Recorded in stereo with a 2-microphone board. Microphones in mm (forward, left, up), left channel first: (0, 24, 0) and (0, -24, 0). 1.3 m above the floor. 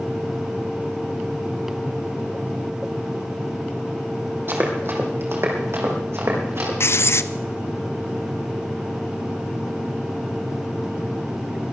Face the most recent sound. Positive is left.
turn(degrees=60)  # may be behind; listen again after turning